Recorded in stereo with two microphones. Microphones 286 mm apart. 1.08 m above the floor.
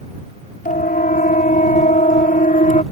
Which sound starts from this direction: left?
A siren, at 0.7 s.